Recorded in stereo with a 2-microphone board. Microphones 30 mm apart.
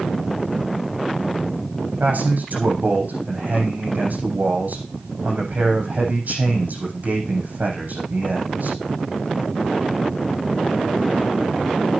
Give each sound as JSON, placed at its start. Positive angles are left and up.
{"t": 2.0, "sound": "a man speaking", "side_deg": -65, "distance_m": 7.5}